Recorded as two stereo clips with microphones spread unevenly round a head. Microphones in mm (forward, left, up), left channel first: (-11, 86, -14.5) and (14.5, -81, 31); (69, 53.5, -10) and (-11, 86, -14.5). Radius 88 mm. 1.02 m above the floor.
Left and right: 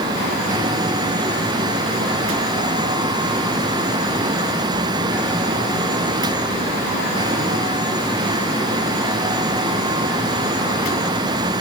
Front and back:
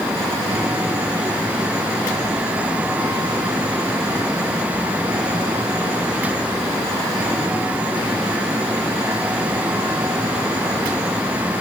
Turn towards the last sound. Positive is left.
No sound to turn to.